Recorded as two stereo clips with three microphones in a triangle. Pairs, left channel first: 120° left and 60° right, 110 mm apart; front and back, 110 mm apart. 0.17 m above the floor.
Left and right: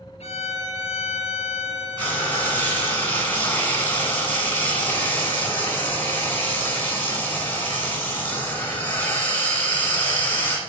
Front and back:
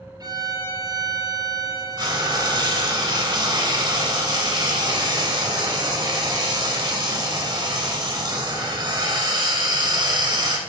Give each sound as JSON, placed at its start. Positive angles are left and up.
{"t": 0.2, "sound": "a violin", "azimuth_deg": 130, "distance_m": 0.7}
{"t": 2.0, "sound": "frying", "azimuth_deg": 180, "distance_m": 1.3}